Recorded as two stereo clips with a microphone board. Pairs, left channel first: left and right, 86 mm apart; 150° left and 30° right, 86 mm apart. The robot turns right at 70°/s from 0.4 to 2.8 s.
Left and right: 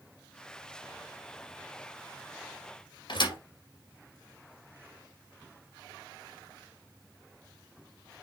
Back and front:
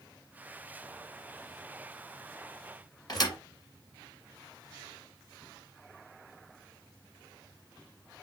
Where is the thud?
110° left, 2 m.